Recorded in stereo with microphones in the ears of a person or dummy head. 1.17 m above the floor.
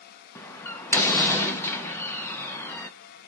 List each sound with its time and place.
0.3 s a door slam: 15° left (ahead or behind), 0.6 m